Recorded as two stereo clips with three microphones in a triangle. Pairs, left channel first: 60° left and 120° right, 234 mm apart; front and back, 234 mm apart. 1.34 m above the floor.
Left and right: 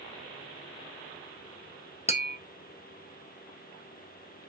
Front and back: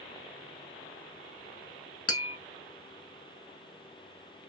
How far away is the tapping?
About 0.7 m.